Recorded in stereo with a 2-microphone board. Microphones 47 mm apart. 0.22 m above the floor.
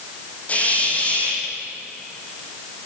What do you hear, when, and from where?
0.5 s a hiss: 30° left (ahead or behind), 5.5 m